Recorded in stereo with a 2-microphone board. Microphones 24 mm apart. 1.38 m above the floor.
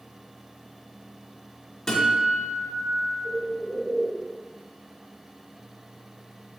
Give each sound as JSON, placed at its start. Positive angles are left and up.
{"t": 1.9, "sound": "a guitar", "side_deg": 15, "distance_m": 1.4}
{"t": 3.2, "sound": "a bird", "side_deg": -50, "distance_m": 1.9}